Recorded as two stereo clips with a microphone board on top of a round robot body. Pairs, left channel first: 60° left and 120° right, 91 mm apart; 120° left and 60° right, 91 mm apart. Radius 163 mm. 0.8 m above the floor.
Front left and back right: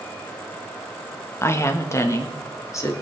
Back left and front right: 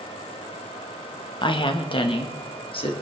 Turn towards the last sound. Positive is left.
turn(degrees=115)